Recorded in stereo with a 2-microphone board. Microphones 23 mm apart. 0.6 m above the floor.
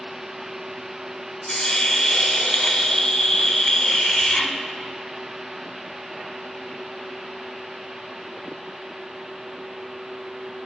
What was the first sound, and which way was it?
A hiss, 40° left (ahead or behind).